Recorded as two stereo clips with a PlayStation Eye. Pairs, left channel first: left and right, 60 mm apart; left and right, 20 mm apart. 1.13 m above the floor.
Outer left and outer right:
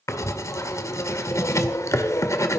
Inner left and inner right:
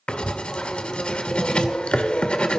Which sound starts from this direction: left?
Writing, at 0.1 s.